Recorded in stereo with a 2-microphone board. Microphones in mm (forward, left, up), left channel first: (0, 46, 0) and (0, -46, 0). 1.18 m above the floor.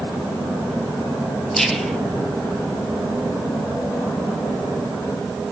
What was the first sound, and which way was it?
Whispering, centre (ahead or behind).